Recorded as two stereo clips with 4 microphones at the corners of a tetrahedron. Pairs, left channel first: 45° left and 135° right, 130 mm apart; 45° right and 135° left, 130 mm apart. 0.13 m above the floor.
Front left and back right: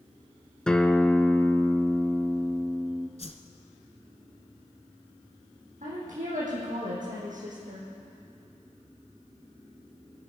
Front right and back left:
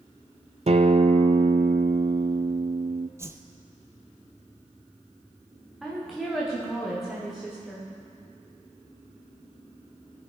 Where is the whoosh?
70° left, 1.1 m.